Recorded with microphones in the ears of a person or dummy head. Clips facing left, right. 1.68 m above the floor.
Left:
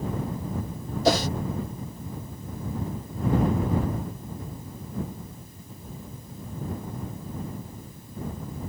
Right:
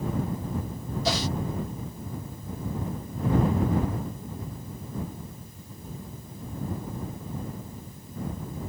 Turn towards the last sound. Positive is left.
turn(degrees=50)  # may be behind; listen again after turning